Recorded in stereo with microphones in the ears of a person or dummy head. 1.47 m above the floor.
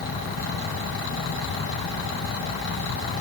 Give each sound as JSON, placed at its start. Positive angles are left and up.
{"t": 0.0, "sound": "a fan", "side_deg": 85}